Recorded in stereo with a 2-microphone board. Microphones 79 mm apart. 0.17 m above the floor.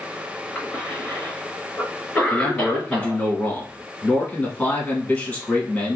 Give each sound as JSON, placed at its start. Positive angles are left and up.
{"t": 0.6, "sound": "a cough", "side_deg": 10, "distance_m": 1.7}
{"t": 2.3, "sound": "a man speaking", "side_deg": 20, "distance_m": 1.2}